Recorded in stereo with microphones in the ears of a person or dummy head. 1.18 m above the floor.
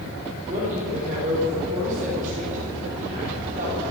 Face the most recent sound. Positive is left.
turn(degrees=-40)  # may be behind; listen again after turning